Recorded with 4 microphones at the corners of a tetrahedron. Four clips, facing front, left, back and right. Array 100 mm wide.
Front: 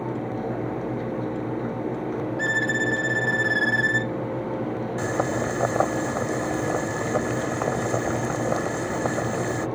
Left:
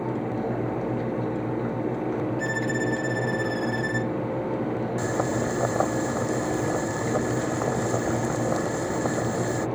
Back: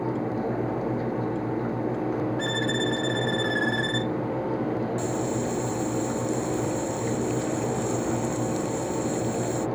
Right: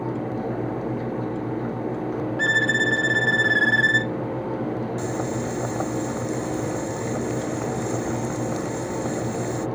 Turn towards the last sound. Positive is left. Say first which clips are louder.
# left 1 dB, front 2 dB
turn(degrees=25)